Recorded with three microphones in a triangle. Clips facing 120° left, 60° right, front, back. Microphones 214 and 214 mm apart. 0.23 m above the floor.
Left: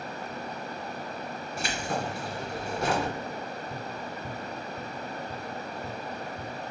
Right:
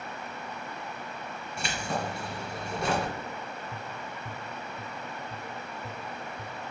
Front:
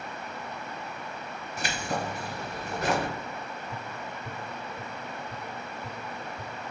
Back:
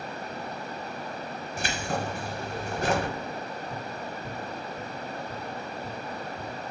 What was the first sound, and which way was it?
Keys jangling, 150° right.